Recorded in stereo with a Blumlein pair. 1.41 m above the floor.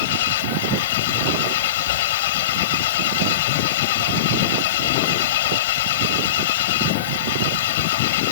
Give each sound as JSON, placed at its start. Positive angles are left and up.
{"t": 0.0, "sound": "an engine running", "azimuth_deg": 55}